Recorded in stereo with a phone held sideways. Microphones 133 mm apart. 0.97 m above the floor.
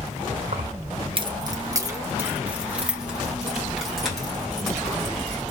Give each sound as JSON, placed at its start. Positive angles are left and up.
{"t": 0.5, "sound": "keys jangling", "side_deg": -70, "distance_m": 0.6}